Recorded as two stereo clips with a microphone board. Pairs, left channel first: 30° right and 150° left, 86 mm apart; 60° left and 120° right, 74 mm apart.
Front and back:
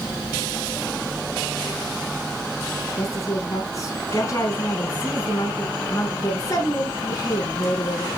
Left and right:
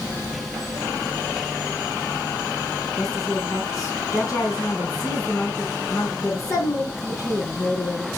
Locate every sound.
3.0 s a woman speaking: 20° left, 4.5 m